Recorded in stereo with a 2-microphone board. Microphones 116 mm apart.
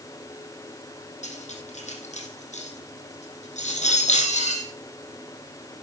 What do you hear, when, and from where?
1.2 s cutlery clinking: 70° left (ahead or behind), 3.5 m